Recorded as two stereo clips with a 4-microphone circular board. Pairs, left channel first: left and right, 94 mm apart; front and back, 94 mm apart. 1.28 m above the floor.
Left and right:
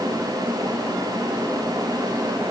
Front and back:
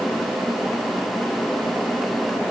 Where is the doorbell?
No doorbell in this recording.